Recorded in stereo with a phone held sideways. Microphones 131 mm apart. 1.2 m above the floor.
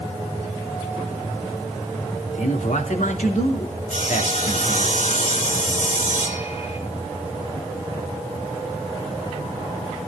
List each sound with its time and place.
2.3 s a man speaking: 70° left (ahead or behind), 3 m
3.9 s sawing: 65° left (ahead or behind), 3 m